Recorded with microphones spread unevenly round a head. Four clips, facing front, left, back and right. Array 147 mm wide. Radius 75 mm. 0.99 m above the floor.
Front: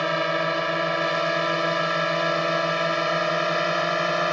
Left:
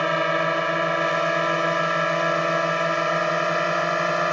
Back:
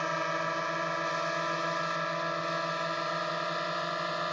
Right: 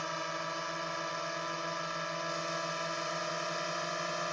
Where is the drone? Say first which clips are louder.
Left 15 dB, front 8 dB; 55° left; by 4.3 s 45° left.